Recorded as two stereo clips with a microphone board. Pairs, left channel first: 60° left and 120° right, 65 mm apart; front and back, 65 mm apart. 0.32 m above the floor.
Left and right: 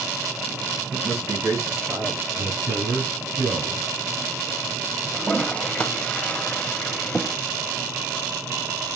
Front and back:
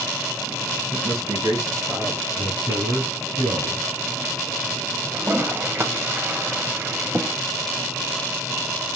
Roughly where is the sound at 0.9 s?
Behind right.